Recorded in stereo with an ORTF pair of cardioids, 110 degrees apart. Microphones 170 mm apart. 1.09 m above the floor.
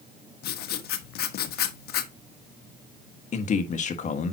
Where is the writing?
65° left, 1.2 m.